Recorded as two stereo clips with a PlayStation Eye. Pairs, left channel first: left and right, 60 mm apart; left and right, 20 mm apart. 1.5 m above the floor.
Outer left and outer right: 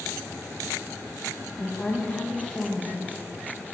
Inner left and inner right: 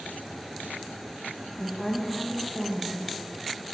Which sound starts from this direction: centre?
A woman speaking, at 1.6 s.